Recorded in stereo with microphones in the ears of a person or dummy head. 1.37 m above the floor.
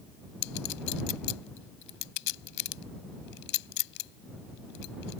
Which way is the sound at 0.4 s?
60° left (ahead or behind).